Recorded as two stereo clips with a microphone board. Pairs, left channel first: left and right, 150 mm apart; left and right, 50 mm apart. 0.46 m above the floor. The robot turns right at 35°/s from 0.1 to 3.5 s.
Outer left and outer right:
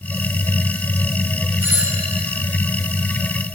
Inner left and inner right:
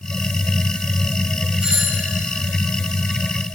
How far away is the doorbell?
About 3.5 m.